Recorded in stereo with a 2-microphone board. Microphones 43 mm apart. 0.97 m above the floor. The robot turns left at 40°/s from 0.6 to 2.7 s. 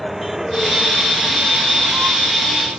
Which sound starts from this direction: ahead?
A vehicle, at 0.0 s.